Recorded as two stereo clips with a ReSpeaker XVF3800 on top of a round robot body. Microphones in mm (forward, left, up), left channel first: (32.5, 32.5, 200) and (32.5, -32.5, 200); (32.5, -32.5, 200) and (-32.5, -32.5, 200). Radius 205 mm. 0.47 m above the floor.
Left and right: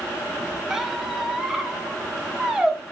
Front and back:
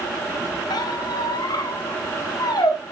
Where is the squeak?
10° right, 1.4 m.